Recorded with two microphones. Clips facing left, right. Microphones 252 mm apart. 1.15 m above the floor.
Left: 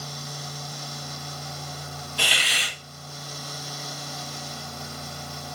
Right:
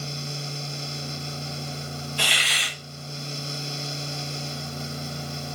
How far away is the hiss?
About 1.8 m.